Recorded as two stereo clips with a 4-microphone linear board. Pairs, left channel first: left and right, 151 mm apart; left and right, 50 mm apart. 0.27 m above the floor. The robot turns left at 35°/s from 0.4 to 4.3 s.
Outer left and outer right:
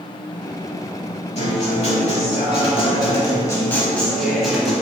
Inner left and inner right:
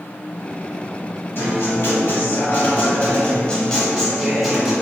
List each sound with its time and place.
1.4 s a guitar: 100° left, 0.7 m; by 4.7 s straight ahead, 0.7 m